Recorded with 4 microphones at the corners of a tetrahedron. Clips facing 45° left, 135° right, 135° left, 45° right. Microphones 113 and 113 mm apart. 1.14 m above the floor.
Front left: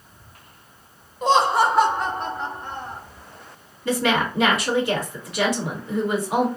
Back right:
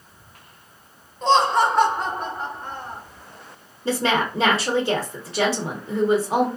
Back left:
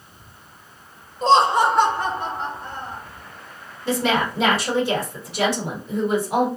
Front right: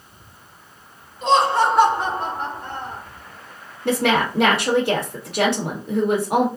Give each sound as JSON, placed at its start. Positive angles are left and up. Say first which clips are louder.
{"t": 1.2, "sound": "laughter", "louder": "even, back left 1 dB", "azimuth_deg": 120, "distance_m": 0.7}
{"t": 3.9, "sound": "a woman speaking", "louder": "even, front right 2 dB", "azimuth_deg": -75, "distance_m": 1.1}